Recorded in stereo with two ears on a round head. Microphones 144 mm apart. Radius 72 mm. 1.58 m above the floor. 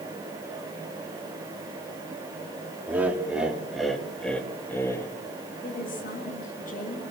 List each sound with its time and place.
2.9 s laughter: 10° right (ahead or behind), 4 m; by 5.1 s 20° left (ahead or behind), 3 m
5.6 s a woman speaking: 55° left (ahead or behind), 8 m